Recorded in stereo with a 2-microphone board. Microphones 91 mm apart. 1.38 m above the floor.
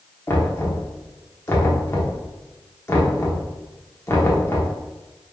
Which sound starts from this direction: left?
Knocking, at 0.3 s.